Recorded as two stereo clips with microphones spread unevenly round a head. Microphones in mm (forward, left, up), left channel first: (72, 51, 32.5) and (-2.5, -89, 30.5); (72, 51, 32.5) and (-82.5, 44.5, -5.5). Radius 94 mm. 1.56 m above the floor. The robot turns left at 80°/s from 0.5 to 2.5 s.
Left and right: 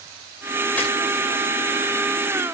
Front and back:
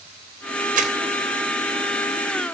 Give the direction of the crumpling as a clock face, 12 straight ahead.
7 o'clock.